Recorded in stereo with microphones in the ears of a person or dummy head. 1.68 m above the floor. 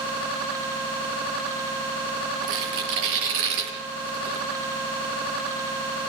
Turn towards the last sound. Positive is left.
turn(degrees=-75)  # may be behind; listen again after turning